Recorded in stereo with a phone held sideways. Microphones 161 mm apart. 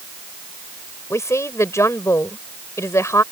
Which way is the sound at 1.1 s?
15° left (ahead or behind).